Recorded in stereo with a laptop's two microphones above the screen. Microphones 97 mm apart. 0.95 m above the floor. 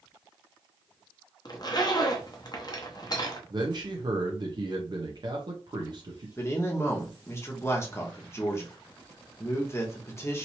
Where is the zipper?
40° left (ahead or behind), 0.8 m.